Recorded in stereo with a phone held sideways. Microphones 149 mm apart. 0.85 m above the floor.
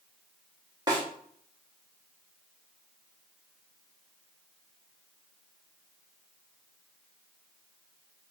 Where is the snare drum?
30° right (ahead or behind), 1.0 m.